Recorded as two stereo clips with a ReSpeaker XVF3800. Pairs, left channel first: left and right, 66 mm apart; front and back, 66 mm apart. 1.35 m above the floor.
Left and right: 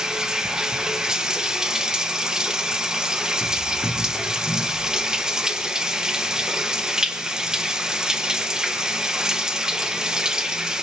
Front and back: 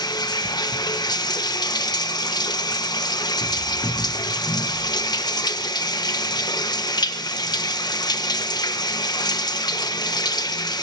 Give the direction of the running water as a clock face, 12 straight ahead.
12 o'clock.